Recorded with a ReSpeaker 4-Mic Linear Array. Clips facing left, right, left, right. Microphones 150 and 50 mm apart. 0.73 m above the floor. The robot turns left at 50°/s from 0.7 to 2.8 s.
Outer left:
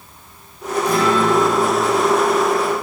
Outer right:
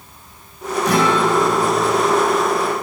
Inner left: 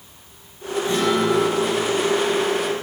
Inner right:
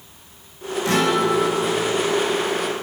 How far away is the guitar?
About 5.5 m.